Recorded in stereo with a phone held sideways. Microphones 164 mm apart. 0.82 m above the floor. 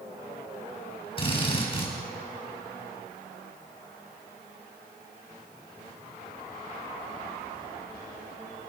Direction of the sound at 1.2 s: 35° left (ahead or behind).